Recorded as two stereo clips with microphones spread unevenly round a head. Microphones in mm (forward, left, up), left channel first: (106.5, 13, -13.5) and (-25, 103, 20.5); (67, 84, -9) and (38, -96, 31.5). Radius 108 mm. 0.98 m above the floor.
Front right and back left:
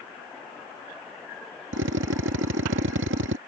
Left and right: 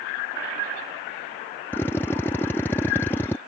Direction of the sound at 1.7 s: 160° left.